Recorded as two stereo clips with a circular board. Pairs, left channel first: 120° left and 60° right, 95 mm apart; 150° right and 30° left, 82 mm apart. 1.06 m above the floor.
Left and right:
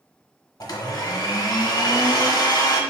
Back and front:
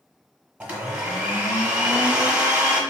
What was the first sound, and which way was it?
A blender, 95° left.